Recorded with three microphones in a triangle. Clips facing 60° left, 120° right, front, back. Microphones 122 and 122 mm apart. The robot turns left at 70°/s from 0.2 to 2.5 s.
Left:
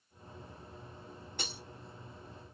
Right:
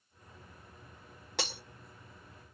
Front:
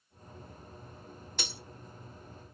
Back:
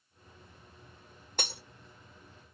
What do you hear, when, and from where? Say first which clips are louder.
1.4 s breaking glass: right 7 dB, back 4 dB; 135° right, 0.8 m; by 1.6 s 150° right, 0.8 m